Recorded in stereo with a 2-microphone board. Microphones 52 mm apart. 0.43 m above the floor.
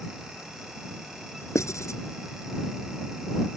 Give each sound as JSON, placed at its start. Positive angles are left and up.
{"t": 1.6, "sound": "writing", "side_deg": 80}